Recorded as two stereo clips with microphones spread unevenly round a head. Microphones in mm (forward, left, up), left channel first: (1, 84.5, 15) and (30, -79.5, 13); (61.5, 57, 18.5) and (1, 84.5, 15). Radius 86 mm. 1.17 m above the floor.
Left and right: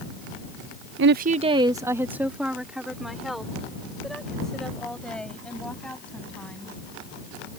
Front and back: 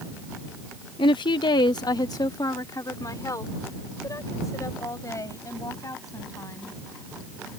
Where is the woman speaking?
60° right; by 6.8 s 15° left.